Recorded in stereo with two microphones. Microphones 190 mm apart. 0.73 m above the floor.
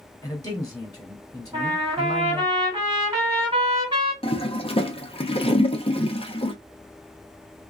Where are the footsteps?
No footsteps in this recording.